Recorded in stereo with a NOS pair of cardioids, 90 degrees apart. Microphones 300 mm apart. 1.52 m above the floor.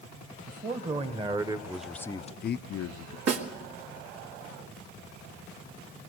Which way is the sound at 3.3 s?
65° right.